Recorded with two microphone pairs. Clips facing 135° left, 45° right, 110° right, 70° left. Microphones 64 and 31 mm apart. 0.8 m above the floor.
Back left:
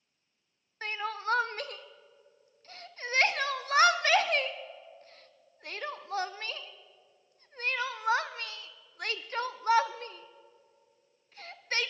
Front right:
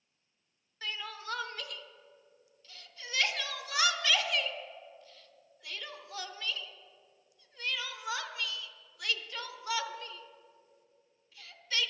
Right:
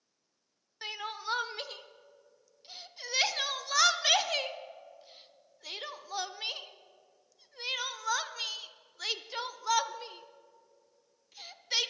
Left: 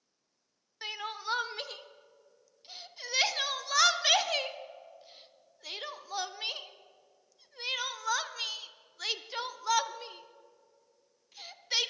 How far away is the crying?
About 0.5 m.